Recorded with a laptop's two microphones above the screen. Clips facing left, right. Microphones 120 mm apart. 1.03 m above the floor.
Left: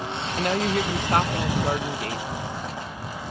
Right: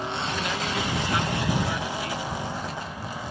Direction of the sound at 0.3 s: 50° left (ahead or behind).